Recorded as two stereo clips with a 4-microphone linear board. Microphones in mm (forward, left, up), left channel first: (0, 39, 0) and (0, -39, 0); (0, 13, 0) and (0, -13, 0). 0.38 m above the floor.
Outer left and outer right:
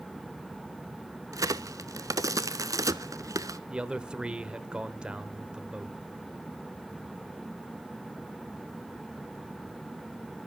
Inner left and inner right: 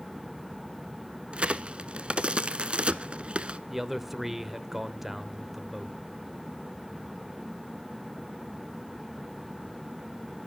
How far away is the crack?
About 0.7 m.